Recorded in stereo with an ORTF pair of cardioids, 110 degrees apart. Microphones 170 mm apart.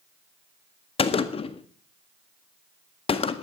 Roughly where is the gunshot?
Ahead left.